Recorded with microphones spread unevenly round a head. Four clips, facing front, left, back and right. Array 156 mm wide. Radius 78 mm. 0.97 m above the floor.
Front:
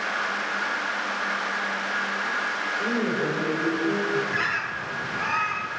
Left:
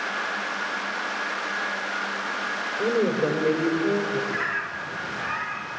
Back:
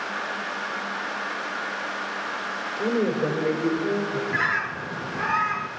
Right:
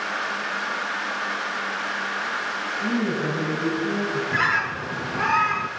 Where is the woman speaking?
115° left, 4 m.